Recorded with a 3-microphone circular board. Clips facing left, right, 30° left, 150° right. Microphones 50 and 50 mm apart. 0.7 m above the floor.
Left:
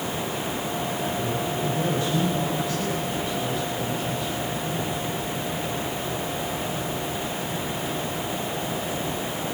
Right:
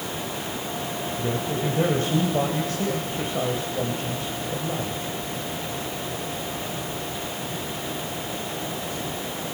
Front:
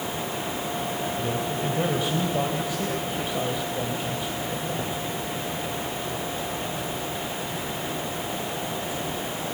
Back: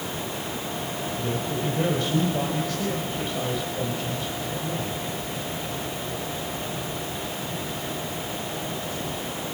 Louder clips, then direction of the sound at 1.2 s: Even, front 1 dB; 45° right.